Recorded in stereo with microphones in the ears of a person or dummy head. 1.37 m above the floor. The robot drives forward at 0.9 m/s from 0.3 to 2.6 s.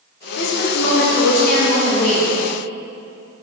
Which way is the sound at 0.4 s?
85° left.